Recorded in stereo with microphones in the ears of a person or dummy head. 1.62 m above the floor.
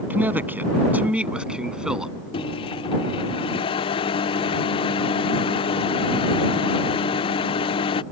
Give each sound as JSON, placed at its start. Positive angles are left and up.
{"t": 0.1, "sound": "a man speaking", "side_deg": -15}
{"t": 2.3, "sound": "a microwave", "side_deg": 30}